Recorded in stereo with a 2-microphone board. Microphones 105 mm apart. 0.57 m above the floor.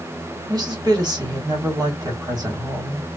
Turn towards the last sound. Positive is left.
turn(degrees=-40)  # may be behind; listen again after turning